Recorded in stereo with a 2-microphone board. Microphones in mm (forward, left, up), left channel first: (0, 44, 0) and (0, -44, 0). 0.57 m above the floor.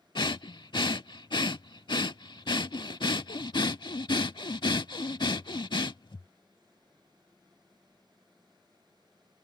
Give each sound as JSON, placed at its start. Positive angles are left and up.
{"t": 0.1, "sound": "breathing", "side_deg": 60}